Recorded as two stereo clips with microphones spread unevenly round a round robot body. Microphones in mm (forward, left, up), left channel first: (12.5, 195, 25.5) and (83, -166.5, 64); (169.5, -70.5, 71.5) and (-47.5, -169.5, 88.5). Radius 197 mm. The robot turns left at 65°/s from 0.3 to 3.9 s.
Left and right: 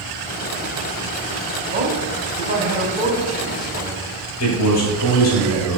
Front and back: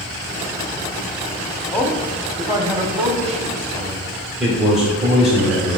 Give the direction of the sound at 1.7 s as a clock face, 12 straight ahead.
1 o'clock.